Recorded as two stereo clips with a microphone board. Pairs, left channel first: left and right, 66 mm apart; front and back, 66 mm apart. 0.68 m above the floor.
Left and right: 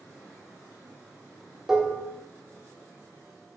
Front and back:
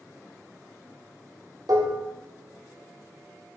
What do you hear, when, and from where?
1.7 s dishes clattering: 170° right, 1.0 m